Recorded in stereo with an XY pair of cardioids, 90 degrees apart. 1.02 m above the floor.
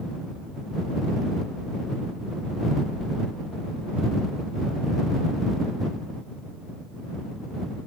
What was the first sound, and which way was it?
Only background noise.